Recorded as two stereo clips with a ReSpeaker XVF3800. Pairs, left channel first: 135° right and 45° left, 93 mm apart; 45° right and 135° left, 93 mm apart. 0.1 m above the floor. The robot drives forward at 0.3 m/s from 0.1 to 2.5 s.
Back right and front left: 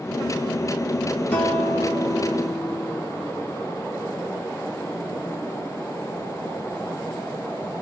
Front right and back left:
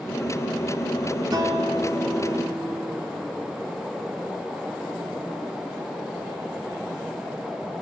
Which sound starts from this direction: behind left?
A guitar, at 1.3 s.